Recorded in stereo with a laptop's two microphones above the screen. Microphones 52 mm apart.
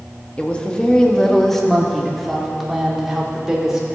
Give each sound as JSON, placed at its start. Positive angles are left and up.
{"t": 0.4, "sound": "a woman speaking", "side_deg": 25, "distance_m": 1.3}